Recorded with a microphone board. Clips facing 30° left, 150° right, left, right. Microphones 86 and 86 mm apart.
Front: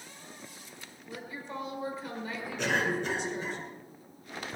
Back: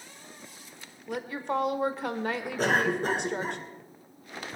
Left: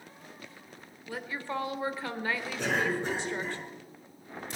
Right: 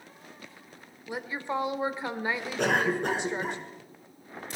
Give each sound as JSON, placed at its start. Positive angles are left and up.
{"t": 1.1, "sound": "a woman speaking", "azimuth_deg": -160, "distance_m": 1.5}
{"t": 2.6, "sound": "a cough", "azimuth_deg": -105, "distance_m": 2.5}